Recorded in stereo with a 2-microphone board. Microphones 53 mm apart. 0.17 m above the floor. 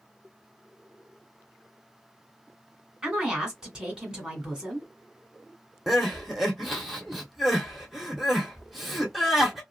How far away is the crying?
About 0.9 m.